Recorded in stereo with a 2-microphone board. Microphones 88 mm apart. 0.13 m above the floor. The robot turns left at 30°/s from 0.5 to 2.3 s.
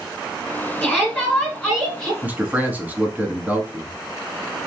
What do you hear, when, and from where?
0.8 s a shout: 15° left (ahead or behind), 1.8 m; by 2.1 s centre (ahead or behind), 1.8 m
2.2 s a man speaking: 20° right (ahead or behind), 1.2 m